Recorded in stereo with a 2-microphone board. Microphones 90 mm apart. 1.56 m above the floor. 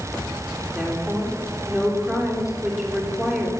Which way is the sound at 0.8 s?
5° right (ahead or behind).